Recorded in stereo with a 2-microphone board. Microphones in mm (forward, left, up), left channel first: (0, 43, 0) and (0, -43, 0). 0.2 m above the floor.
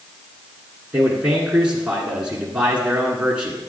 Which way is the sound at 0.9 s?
15° right (ahead or behind).